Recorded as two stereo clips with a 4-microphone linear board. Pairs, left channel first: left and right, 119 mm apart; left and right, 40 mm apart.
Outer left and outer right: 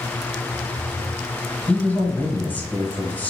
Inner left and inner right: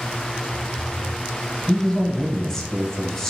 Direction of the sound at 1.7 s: 15° left (ahead or behind).